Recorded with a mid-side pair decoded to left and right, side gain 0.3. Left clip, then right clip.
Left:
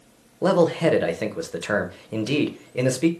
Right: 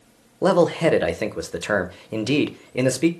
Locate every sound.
0.4 s a man speaking: 35° right, 0.7 m